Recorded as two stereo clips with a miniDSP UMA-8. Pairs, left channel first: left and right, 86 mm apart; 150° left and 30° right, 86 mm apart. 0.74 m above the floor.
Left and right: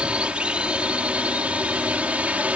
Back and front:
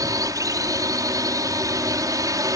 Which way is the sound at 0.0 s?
20° right.